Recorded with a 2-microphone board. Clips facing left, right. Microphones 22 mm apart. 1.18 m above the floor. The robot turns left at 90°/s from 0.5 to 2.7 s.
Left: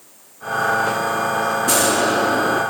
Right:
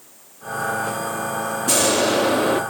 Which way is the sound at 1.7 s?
Straight ahead.